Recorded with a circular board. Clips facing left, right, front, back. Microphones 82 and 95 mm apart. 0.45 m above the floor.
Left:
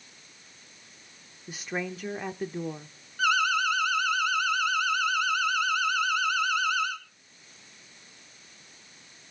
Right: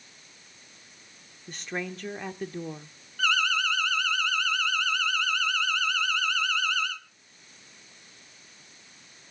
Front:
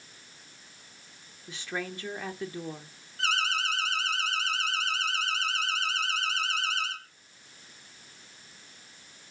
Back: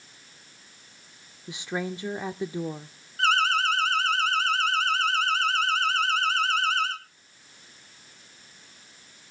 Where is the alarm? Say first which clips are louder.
Left 2 dB, back 7 dB; 165° left, 2.5 m.